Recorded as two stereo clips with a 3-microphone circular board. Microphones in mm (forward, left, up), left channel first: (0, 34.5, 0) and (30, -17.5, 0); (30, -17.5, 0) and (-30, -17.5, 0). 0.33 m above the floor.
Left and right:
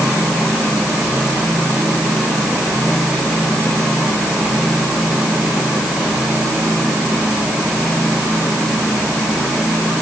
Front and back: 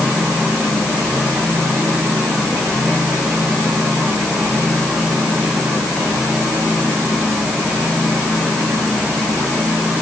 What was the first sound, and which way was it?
Only background noise.